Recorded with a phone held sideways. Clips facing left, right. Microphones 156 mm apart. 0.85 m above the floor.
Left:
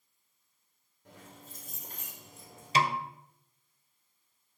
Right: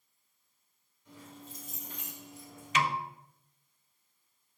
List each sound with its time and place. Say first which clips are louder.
1.1 s keys jangling: right 3 dB; 60° left (ahead or behind), 2.5 m; by 2.9 s 30° left (ahead or behind), 2.5 m
2.8 s a snare drum: left 2 dB; 35° left (ahead or behind), 0.5 m